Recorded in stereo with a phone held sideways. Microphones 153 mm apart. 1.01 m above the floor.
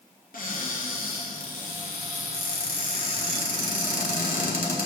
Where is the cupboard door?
65° left (ahead or behind), 2 m.